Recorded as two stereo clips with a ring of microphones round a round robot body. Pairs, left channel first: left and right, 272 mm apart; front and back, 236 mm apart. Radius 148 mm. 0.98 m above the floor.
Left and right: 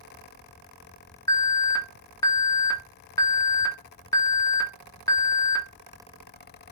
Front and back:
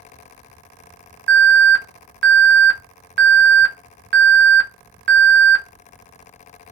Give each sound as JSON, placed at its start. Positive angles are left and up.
{"t": 1.3, "sound": "an alarm", "azimuth_deg": 165, "distance_m": 0.9}